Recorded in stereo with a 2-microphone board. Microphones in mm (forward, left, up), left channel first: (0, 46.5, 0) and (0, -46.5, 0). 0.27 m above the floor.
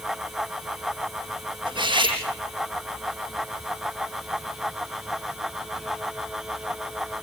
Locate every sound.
1.7 s cutlery clinking: 60° right (ahead or behind), 5.5 m